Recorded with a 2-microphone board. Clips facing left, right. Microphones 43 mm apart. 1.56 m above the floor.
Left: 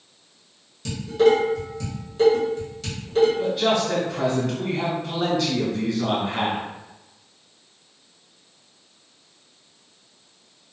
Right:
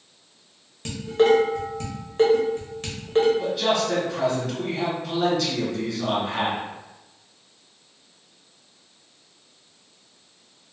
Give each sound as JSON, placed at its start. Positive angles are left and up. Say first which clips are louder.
{"t": 0.8, "sound": "dishes clattering", "louder": "left 1 dB", "side_deg": -45, "distance_m": 1.0}
{"t": 3.4, "sound": "a man speaking", "louder": "left 2 dB", "side_deg": 10, "distance_m": 1.3}